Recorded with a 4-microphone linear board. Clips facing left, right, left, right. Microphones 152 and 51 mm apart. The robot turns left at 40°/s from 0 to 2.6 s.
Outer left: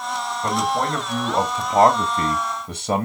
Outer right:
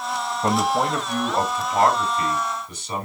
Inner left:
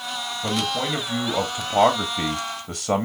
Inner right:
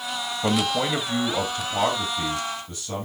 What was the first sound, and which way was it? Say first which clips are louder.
A man speaking: outer right 2 dB, inner right 2 dB; 155° right.